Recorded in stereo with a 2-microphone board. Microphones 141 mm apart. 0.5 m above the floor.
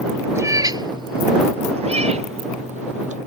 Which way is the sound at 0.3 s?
20° right (ahead or behind).